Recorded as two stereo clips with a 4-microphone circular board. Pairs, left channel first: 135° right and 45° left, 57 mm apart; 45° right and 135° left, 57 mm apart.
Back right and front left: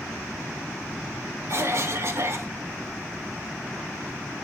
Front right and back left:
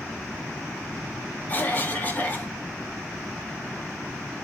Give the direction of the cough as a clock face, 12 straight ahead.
12 o'clock.